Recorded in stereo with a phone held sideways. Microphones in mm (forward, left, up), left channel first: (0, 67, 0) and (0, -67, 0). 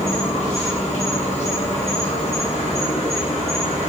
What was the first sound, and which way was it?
An insect, 55° left (ahead or behind).